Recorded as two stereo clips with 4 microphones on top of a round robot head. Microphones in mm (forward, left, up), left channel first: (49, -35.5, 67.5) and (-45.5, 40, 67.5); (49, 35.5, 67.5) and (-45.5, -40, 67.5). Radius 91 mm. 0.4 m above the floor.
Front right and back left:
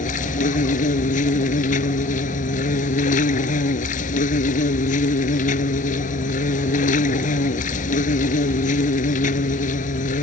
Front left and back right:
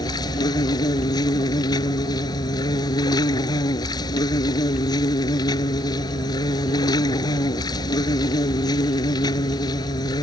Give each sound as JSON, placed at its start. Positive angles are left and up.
{"t": 0.0, "sound": "an insect", "azimuth_deg": -20}